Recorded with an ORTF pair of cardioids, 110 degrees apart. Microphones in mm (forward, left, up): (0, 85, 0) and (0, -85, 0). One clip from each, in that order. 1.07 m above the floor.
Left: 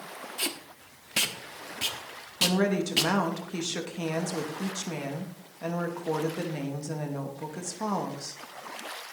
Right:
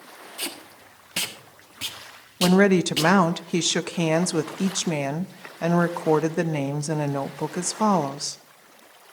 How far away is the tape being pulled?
About 1.4 m.